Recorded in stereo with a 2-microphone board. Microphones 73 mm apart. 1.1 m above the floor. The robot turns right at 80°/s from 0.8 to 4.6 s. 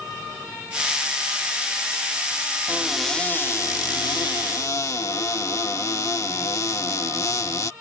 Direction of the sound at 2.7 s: 25° right.